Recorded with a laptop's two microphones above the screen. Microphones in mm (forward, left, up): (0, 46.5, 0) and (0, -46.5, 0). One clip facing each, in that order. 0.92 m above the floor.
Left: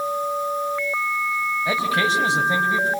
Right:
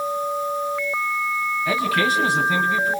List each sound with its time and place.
1.6 s a man speaking: 25° left (ahead or behind), 5.5 m